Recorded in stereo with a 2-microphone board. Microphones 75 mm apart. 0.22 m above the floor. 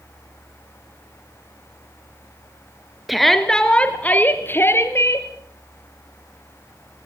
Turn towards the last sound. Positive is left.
turn(degrees=40)  # may be behind; listen again after turning